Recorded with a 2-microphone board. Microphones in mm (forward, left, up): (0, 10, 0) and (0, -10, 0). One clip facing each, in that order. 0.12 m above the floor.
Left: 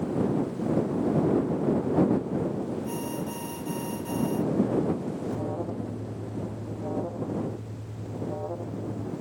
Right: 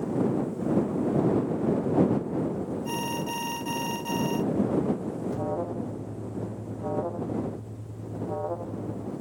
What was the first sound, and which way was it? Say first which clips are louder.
An alarm: right 2 dB; 35° right (ahead or behind).